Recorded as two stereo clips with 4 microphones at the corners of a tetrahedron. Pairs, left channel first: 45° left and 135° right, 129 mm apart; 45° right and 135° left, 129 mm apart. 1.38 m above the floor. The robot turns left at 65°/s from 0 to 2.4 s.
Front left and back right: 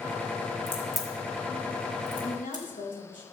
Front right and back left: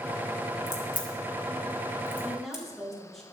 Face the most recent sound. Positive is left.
turn(degrees=40)